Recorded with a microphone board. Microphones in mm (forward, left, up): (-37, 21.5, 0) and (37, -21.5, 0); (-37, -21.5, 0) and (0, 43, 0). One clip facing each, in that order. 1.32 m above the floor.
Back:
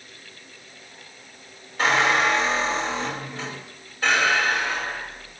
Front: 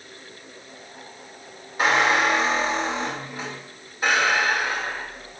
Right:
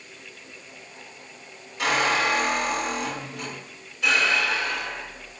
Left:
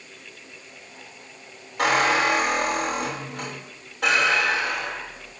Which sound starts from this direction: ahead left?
A squeak, at 1.8 s.